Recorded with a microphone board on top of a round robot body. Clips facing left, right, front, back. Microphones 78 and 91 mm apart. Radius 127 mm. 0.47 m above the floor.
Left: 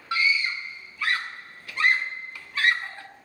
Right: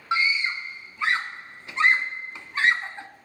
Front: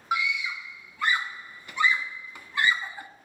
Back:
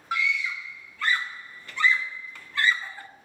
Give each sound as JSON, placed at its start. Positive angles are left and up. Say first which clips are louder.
{"t": 0.1, "sound": "a scream", "louder": "right 1 dB, even", "azimuth_deg": -55, "distance_m": 1.4}